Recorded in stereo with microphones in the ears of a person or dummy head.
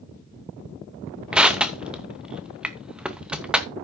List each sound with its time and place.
1.3 s crushing: 5° right (ahead or behind), 0.7 m